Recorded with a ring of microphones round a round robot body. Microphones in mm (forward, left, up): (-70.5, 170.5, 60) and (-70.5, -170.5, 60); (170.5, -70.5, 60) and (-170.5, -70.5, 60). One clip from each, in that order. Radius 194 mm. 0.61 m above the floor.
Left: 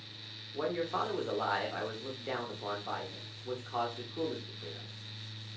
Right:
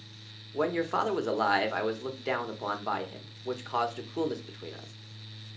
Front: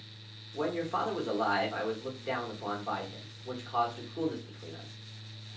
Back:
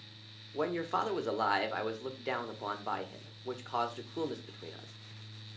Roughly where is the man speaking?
Behind right.